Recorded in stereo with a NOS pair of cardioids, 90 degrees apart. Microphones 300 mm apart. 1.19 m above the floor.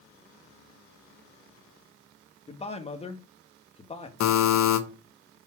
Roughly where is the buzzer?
Ahead left.